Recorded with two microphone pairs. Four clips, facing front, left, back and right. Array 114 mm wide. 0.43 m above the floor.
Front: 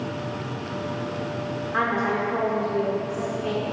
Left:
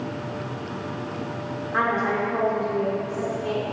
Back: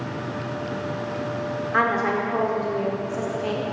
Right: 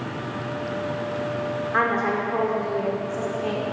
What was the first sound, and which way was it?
A woman speaking, 140° right.